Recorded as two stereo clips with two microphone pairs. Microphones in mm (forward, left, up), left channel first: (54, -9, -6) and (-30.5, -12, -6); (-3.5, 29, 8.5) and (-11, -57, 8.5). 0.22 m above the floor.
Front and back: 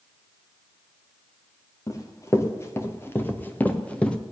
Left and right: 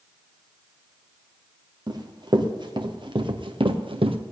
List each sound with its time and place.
1.9 s running footsteps: 55° right, 3 m; by 4.2 s 80° right, 1.8 m